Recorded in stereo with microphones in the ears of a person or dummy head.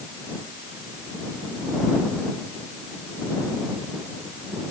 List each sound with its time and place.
Only background noise.